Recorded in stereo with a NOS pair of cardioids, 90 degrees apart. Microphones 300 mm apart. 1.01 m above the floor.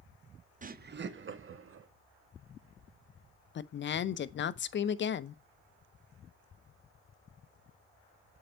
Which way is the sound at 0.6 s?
25° right.